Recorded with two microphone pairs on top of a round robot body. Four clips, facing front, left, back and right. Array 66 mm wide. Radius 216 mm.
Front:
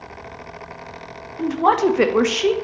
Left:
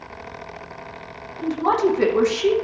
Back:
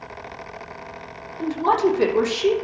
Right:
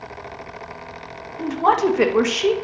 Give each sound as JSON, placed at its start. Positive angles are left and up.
{"t": 1.4, "sound": "a woman speaking", "azimuth_deg": -30, "distance_m": 1.7}